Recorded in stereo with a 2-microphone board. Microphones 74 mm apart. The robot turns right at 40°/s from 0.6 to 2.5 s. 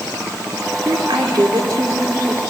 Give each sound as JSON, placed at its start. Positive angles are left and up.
{"t": 0.8, "sound": "a woman speaking", "azimuth_deg": -90, "distance_m": 3.0}